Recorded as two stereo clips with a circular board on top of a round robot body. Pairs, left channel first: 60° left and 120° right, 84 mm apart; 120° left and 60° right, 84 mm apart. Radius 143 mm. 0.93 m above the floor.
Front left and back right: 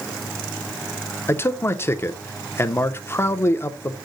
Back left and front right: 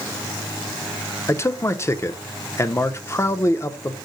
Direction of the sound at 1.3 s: 95° left.